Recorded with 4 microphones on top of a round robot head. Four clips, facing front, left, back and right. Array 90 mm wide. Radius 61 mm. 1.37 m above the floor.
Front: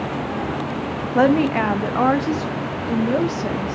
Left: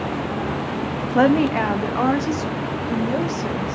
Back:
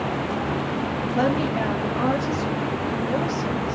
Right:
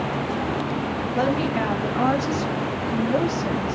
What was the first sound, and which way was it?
A woman speaking, 45° left.